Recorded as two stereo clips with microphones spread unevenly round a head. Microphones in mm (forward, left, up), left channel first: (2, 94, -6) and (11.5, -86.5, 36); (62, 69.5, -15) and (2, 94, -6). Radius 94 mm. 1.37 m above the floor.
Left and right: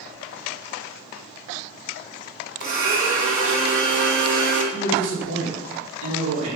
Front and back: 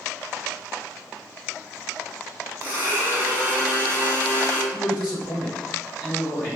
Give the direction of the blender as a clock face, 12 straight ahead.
4 o'clock.